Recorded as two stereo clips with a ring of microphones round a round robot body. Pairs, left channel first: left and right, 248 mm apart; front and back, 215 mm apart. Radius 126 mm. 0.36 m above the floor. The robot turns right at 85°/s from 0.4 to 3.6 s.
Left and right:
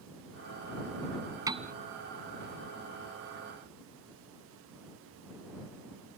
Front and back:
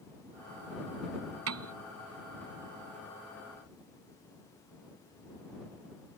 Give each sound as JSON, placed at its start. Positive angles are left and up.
{"t": 1.5, "sound": "a piano", "azimuth_deg": -165}